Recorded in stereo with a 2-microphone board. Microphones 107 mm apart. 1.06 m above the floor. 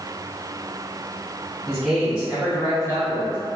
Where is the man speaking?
5° left (ahead or behind), 1.3 m; by 3.4 s 40° right (ahead or behind), 1.0 m.